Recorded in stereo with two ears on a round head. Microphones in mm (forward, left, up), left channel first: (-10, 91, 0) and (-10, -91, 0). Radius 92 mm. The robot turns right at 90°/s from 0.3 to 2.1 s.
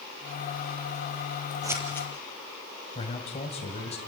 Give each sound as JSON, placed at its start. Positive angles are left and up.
{"t": 1.6, "sound": "scissors", "side_deg": -20, "distance_m": 3.5}
{"t": 3.0, "sound": "a man speaking", "side_deg": 30, "distance_m": 2.5}